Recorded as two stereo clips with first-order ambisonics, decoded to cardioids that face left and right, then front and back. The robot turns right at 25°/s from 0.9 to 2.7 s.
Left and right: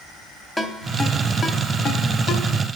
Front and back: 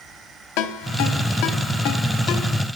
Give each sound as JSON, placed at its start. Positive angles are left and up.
{"t": 0.6, "sound": "a ringtone", "azimuth_deg": 10, "distance_m": 1.1}